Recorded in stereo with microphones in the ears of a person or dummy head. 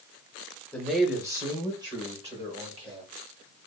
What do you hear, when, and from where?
0.7 s a man speaking: 5° left (ahead or behind), 0.7 m; by 3.1 s 35° right (ahead or behind), 1.6 m